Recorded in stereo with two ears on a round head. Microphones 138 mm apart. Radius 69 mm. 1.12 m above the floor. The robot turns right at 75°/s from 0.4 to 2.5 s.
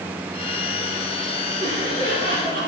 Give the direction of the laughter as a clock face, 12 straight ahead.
4 o'clock.